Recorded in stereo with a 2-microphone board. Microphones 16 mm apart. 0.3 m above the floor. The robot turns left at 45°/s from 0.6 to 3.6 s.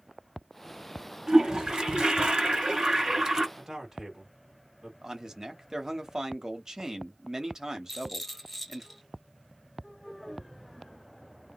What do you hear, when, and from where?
1.3 s a toilet flushing: 35° right, 1.9 m; by 3.5 s 135° right, 1.9 m
3.6 s a man speaking: 35° right (ahead or behind), 1.6 m; by 4.9 s 30° right (ahead or behind), 1.6 m
5.0 s a man speaking: 35° right (ahead or behind), 1.1 m
7.9 s a rattle: centre (ahead or behind), 2 m